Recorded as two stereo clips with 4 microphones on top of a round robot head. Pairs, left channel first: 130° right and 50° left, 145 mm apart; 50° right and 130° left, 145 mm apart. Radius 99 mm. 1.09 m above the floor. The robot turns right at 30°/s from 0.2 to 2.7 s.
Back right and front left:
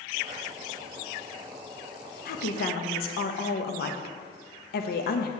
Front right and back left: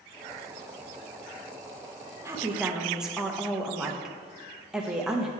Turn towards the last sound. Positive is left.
turn(degrees=-145)